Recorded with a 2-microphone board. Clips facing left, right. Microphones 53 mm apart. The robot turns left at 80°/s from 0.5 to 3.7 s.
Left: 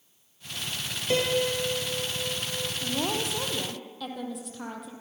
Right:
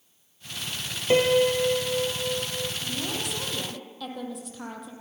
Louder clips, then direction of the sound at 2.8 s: Left 3 dB; 75° left.